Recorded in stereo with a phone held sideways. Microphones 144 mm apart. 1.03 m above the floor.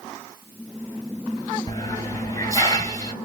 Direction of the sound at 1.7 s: 25° left (ahead or behind).